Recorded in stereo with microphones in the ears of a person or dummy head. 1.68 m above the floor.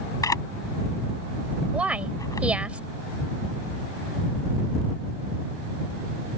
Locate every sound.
0.2 s a camera shutter: 20° left (ahead or behind)
1.7 s a woman speaking: centre (ahead or behind)